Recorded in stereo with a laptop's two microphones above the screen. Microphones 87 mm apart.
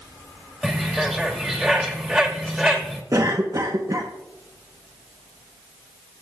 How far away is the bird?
About 2.5 m.